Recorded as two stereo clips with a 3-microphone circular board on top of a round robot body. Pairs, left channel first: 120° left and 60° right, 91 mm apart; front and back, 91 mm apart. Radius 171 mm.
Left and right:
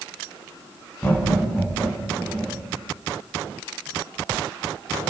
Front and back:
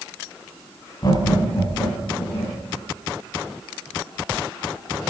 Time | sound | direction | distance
1.0 | laughter | 50° left | 4 m